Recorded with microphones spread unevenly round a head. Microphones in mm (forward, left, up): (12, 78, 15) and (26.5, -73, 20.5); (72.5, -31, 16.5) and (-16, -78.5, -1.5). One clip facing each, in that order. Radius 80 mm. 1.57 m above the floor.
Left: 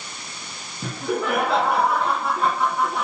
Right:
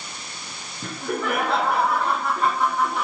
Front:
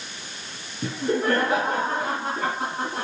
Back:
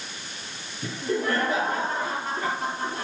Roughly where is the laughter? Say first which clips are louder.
Left 2 dB, front 3 dB; ahead.